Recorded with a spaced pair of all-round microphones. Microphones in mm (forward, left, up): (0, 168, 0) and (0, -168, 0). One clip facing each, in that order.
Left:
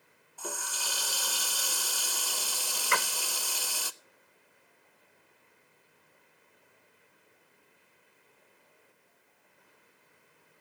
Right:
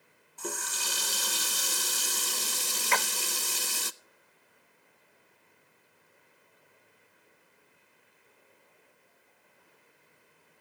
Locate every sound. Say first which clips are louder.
0.4 s a running tap: right 3 dB; 30° right (ahead or behind), 0.6 m
2.9 s a splash: right 1 dB; 15° left (ahead or behind), 0.8 m